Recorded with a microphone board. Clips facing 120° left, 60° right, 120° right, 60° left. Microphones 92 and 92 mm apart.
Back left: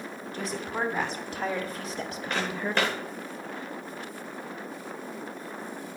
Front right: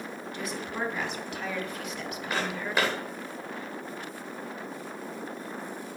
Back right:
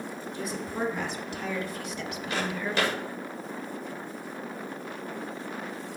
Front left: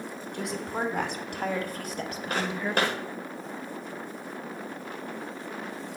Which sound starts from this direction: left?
A woman speaking, at 0.3 s.